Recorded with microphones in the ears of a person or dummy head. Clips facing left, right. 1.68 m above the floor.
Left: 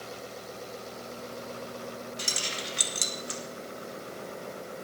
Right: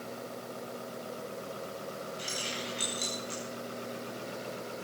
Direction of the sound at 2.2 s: 70° left (ahead or behind).